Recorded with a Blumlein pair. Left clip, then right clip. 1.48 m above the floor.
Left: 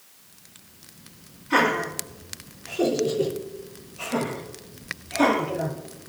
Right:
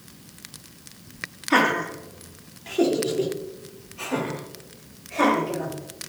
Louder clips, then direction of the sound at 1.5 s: Right 1 dB; 30° right.